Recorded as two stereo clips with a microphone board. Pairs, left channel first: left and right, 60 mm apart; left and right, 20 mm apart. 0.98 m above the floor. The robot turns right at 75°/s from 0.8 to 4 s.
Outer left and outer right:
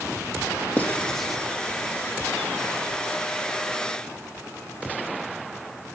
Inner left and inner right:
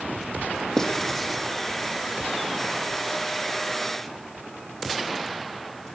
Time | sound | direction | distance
0.8 | writing | 35° left (ahead or behind) | 1.3 m